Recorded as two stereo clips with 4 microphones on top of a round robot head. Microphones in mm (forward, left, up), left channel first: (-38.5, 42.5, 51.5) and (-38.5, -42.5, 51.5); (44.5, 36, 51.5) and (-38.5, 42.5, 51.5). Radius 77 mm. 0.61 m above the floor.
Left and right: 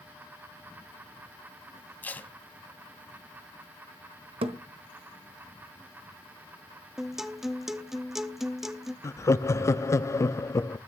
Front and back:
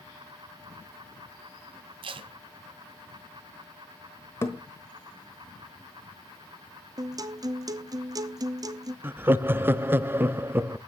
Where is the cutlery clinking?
No cutlery clinking in this recording.